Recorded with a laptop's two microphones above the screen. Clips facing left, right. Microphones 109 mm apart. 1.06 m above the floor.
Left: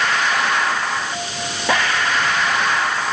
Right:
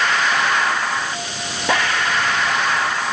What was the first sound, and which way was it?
Only background noise.